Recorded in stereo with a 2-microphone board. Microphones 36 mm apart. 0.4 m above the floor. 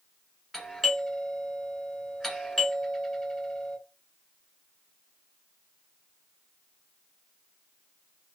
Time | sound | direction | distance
0.5 | a doorbell | centre (ahead or behind) | 1.6 m